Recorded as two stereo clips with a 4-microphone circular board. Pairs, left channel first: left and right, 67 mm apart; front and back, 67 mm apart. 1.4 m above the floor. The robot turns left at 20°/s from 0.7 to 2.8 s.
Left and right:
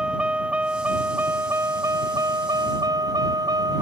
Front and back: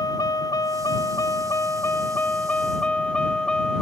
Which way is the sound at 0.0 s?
15° right.